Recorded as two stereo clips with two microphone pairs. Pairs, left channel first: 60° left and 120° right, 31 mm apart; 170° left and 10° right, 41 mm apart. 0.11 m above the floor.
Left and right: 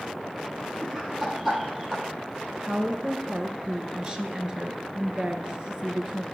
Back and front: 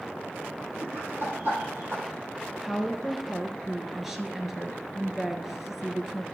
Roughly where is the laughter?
Ahead right.